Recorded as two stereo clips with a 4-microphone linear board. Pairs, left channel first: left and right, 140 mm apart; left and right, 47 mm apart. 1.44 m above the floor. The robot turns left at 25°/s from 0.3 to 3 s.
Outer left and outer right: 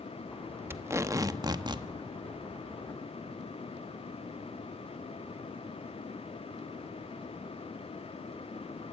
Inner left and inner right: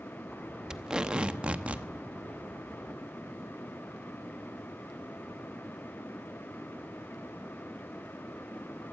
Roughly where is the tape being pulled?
Centre.